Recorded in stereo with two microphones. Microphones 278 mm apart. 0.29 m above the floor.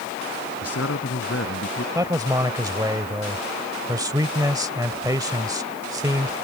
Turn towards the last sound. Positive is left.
turn(degrees=-15)  # may be behind; listen again after turning